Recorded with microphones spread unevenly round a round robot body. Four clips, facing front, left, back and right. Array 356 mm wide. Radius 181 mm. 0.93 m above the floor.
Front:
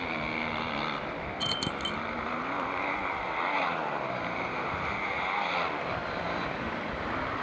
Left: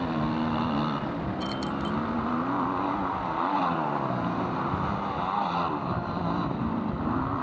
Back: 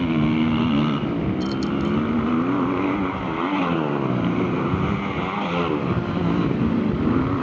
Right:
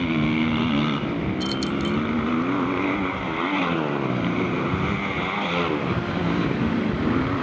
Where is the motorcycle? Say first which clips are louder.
Right 5 dB, back 14 dB; 160° right.